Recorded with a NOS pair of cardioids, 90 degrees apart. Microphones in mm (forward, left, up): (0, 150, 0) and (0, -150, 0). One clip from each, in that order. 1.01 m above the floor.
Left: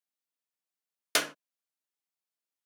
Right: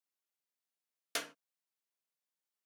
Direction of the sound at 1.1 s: 50° left.